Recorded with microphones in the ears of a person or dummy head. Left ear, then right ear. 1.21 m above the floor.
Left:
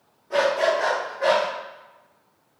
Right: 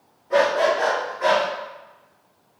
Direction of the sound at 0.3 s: 5° right (ahead or behind).